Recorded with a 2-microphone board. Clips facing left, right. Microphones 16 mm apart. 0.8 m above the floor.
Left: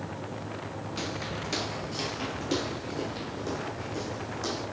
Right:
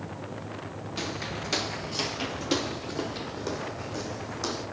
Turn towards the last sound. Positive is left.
turn(degrees=-20)  # may be behind; listen again after turning